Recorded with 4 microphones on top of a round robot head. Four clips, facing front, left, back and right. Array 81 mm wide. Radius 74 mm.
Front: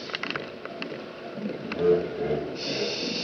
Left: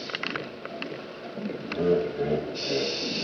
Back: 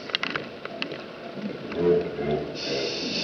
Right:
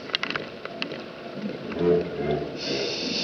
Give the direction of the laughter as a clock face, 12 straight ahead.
5 o'clock.